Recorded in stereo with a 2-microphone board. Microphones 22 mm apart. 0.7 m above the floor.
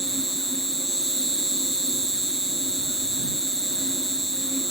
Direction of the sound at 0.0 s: 35° left (ahead or behind).